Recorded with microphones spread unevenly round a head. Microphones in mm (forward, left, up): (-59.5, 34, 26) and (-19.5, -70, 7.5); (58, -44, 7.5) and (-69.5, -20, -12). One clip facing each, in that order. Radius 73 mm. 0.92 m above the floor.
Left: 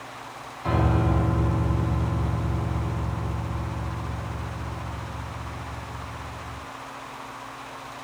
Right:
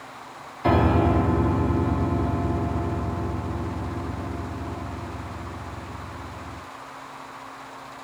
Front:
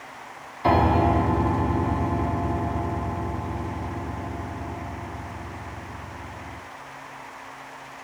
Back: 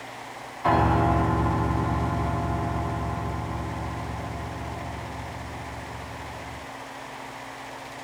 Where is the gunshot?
I don't hear a gunshot.